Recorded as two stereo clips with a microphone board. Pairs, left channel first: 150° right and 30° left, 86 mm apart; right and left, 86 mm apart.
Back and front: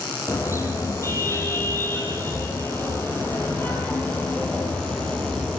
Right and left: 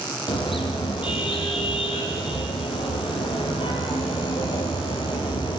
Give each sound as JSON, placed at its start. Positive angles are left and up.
{"t": 0.3, "sound": "a car horn", "azimuth_deg": -95, "distance_m": 7.5}